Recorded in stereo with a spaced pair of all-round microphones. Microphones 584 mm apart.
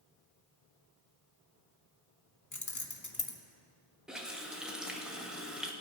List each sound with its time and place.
2.5 s keys jangling: 30° left (ahead or behind), 0.8 m
4.1 s a running tap: centre (ahead or behind), 0.9 m